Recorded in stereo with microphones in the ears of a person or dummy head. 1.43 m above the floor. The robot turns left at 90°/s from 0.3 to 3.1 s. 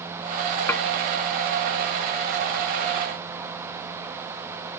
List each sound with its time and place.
0.7 s dishes clattering: 15° left (ahead or behind), 1.3 m; by 0.8 s 25° left (ahead or behind), 1.3 m